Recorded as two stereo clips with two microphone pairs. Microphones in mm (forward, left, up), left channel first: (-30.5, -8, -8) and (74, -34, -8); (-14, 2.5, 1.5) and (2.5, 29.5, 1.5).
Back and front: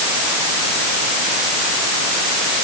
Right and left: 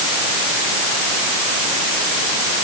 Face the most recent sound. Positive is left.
No sound to turn to.